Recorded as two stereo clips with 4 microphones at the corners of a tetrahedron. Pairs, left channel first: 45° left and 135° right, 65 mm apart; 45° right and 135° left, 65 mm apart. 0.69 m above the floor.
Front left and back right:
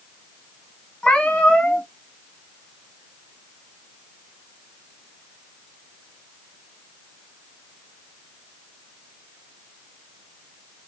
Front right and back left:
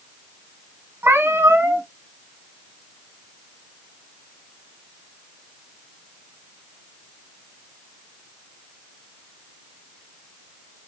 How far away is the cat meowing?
About 0.7 m.